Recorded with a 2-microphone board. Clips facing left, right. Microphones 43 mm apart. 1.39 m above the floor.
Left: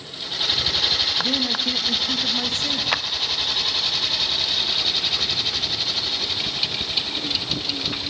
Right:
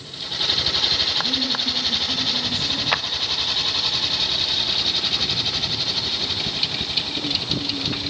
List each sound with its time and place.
1.2 s a man speaking: 75° left (ahead or behind), 2.5 m
2.9 s a clap: 5° right (ahead or behind), 0.5 m